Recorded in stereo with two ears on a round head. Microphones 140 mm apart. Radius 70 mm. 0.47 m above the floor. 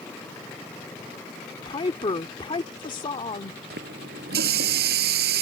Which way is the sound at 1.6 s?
30° left (ahead or behind).